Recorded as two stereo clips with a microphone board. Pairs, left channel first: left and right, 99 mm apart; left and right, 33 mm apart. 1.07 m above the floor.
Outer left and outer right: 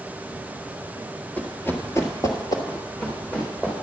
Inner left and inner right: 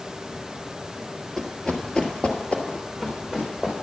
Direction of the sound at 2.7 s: 15° left (ahead or behind).